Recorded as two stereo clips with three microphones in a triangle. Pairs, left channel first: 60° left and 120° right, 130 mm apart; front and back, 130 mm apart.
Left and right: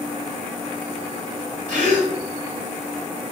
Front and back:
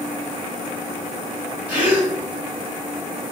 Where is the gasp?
100° right, 2.5 m.